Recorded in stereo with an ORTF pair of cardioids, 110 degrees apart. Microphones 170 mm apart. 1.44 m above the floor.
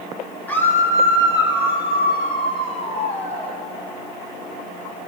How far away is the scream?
About 2.5 m.